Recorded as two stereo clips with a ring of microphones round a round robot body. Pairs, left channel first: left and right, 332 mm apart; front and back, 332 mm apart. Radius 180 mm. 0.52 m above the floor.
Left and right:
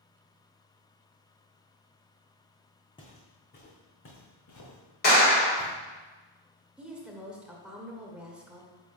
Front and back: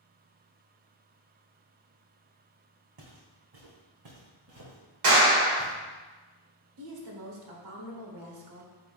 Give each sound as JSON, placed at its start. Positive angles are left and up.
{"t": 3.0, "sound": "footsteps", "azimuth_deg": 165, "distance_m": 1.6}
{"t": 5.0, "sound": "a clap", "azimuth_deg": 150, "distance_m": 2.0}
{"t": 6.8, "sound": "a woman speaking", "azimuth_deg": -175, "distance_m": 1.4}